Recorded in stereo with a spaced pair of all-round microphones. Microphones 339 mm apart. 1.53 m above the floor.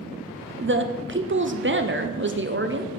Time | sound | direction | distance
0.6 | a woman speaking | 35° right (ahead or behind) | 0.5 m